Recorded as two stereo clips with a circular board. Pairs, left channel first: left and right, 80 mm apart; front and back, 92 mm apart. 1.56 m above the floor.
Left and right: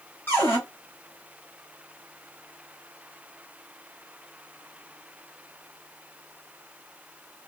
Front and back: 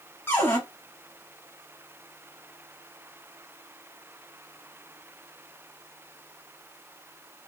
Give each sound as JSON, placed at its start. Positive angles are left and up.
{"t": 0.3, "sound": "a cupboard door", "azimuth_deg": 50, "distance_m": 1.2}